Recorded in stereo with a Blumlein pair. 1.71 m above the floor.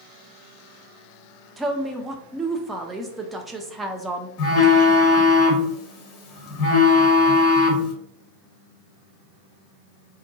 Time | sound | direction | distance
1.6 | a woman speaking | 10° right | 0.5 m
4.4 | a phone buzzing | 35° left | 0.8 m